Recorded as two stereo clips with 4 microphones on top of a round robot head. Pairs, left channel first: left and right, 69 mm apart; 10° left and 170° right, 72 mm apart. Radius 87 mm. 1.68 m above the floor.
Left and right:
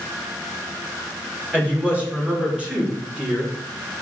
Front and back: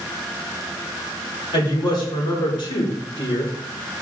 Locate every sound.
1.5 s a woman speaking: 20° right, 5.5 m; by 3.5 s 15° right, 4 m